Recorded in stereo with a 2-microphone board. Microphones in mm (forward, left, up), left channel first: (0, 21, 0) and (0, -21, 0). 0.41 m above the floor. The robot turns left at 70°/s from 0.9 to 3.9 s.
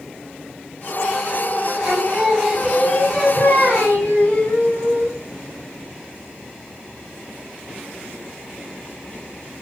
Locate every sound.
1.8 s singing: 140° right, 2 m; by 5.2 s 75° left, 2 m